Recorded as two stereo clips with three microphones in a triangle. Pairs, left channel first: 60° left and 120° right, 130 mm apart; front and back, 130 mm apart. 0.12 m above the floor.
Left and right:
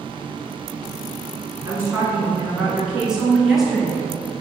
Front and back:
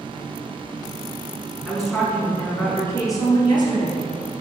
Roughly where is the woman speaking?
Right.